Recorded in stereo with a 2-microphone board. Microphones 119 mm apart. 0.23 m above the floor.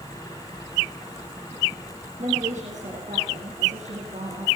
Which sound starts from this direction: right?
A woman speaking, at 2.2 s.